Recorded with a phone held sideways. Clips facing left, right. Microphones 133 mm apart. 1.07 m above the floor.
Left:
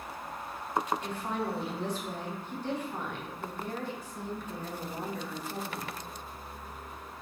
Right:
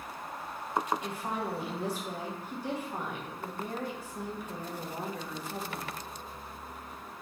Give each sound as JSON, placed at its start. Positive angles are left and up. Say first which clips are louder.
{"t": 1.0, "sound": "a woman speaking", "louder": "left 1 dB", "side_deg": -10, "distance_m": 0.8}